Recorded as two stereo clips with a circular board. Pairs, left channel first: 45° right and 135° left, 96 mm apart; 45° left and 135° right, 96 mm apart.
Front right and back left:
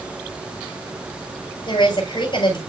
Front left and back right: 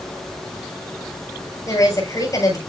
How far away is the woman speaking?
About 6.5 m.